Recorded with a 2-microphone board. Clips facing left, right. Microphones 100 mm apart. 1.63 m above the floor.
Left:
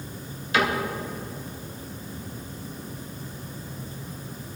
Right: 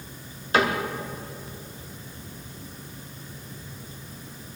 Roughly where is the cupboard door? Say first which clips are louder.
Right 1 dB; right.